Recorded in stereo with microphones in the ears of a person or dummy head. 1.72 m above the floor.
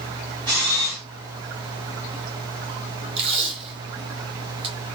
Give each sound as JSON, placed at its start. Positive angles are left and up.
{"t": 0.5, "sound": "a camera shutter", "side_deg": -25, "distance_m": 1.8}
{"t": 3.2, "sound": "tape being pulled", "side_deg": -30, "distance_m": 1.8}